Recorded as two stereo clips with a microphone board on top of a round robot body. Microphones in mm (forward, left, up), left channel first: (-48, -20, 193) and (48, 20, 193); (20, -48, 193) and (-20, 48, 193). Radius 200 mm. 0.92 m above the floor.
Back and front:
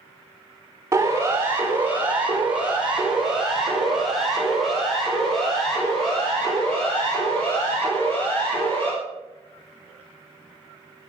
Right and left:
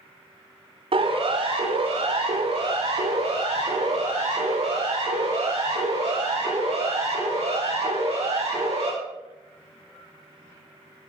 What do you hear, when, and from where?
0.9 s a siren: 90° left, 5.5 m; by 8.9 s 125° left, 11.5 m